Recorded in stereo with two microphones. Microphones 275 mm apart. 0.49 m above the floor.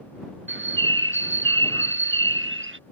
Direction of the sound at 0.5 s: 45° right (ahead or behind).